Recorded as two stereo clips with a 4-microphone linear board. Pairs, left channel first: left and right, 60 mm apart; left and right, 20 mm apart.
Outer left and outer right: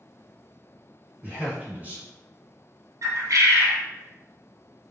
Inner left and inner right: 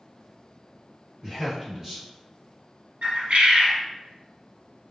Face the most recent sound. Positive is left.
turn(degrees=-65)  # may be behind; listen again after turning